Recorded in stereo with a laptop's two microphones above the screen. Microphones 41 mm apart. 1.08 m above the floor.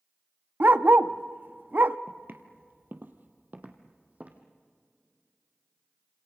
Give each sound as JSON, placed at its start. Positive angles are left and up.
{"t": 0.6, "sound": "a dog barking", "side_deg": -45, "distance_m": 0.6}
{"t": 2.1, "sound": "footsteps", "side_deg": -50, "distance_m": 1.7}